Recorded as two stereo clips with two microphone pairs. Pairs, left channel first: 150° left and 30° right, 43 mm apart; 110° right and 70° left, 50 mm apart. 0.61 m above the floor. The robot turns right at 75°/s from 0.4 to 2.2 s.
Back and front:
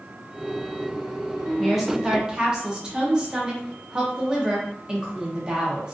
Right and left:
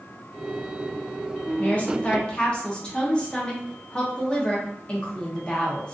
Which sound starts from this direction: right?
A woman speaking, at 1.6 s.